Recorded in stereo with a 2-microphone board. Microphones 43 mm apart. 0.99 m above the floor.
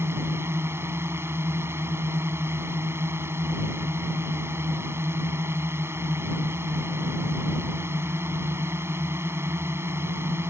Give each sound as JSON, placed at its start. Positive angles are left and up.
{"t": 0.0, "sound": "a drone", "side_deg": -65}